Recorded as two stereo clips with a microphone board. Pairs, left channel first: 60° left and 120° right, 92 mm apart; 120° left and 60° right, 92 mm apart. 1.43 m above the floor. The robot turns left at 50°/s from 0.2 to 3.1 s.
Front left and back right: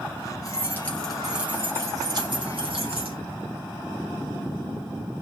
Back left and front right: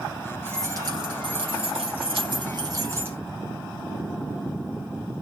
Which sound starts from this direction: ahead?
Keys jangling, at 0.5 s.